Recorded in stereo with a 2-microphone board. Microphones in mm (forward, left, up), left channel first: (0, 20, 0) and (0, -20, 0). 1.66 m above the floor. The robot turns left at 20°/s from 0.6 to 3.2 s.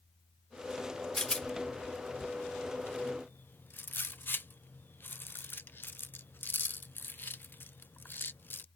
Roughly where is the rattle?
Left.